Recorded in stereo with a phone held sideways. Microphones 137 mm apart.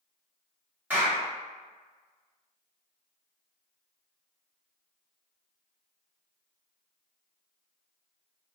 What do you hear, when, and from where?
0.9 s a clap: 10° right (ahead or behind), 1.3 m